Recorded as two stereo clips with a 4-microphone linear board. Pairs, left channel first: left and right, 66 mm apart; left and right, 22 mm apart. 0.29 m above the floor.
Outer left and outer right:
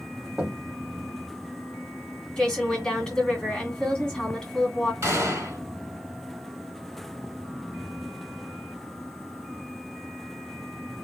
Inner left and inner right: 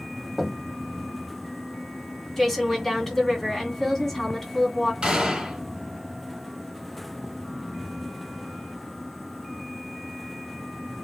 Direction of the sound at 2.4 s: 10° left (ahead or behind).